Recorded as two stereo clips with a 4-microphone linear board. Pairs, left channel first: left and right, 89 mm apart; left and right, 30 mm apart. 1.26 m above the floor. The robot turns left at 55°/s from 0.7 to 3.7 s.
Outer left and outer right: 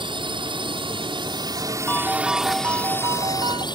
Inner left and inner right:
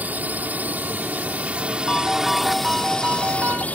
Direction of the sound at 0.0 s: 80° right.